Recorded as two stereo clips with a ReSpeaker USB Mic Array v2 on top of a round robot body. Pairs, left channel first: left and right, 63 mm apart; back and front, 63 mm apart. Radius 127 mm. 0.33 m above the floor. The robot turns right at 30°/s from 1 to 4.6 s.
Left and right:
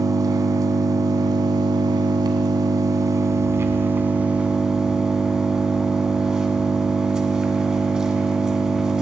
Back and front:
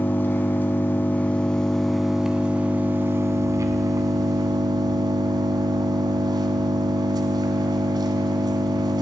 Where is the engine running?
115° right, 1.1 m; by 9.0 s 10° right, 1.1 m.